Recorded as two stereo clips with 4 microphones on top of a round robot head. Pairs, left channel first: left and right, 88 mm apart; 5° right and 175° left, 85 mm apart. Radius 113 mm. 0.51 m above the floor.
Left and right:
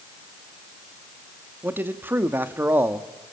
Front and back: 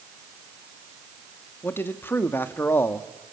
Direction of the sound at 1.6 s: 45° right.